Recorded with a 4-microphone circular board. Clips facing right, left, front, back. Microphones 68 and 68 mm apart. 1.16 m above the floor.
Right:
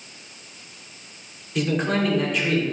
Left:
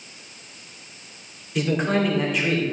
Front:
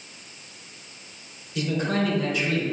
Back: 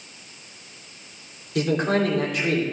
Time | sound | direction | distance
1.6 | a man speaking | straight behind | 3 m